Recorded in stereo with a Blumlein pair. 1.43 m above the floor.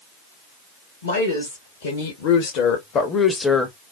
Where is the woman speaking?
65° left, 1.7 m; by 3.8 s 5° right, 0.8 m.